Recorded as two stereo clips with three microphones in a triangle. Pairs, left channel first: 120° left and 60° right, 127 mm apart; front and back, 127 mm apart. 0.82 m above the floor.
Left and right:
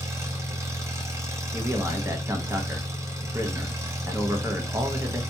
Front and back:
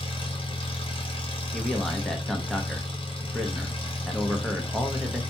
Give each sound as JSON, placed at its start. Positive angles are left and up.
{"t": 0.0, "sound": "an engine running", "azimuth_deg": -5, "distance_m": 0.7}
{"t": 1.5, "sound": "a man speaking", "azimuth_deg": -85, "distance_m": 0.6}